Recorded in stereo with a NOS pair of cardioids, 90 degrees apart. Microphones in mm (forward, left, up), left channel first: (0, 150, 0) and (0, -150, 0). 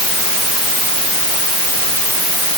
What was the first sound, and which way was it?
Only background noise.